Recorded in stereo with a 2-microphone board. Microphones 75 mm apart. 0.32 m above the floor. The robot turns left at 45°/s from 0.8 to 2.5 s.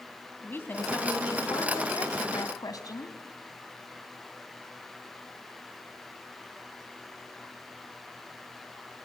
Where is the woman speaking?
145° left, 1.8 m; by 3.2 s 70° left, 1.8 m.